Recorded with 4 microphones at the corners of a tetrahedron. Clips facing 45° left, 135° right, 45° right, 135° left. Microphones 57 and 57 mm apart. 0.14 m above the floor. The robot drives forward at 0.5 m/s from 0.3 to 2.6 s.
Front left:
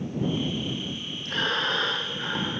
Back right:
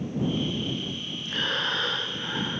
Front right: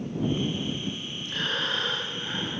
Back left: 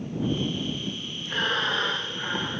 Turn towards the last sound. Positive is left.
turn(degrees=80)